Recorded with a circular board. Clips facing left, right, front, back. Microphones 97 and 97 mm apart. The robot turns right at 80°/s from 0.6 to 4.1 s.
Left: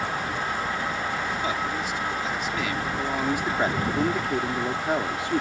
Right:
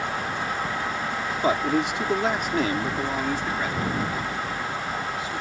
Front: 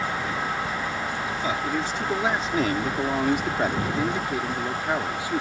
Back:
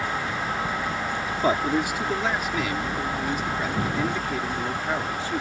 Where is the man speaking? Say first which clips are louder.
Right 5 dB, back 6 dB; 140° right; by 5.4 s 75° left.